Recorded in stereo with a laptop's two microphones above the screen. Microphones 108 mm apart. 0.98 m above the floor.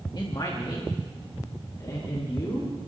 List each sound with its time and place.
0.1 s a man speaking: 45° left (ahead or behind), 1.7 m; by 2.8 s 35° left (ahead or behind), 3.5 m